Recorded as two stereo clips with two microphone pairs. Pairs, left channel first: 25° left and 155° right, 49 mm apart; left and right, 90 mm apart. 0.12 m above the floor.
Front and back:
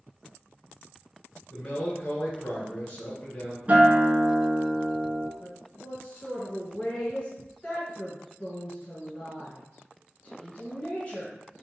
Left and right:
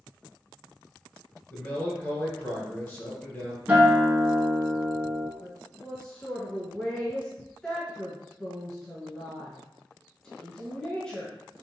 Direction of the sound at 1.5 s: 45° left.